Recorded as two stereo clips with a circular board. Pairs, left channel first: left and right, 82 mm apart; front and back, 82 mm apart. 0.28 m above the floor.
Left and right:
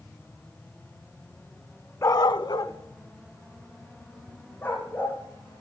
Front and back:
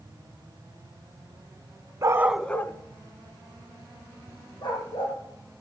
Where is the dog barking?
140° left, 0.7 m; by 5.2 s 20° left, 4 m.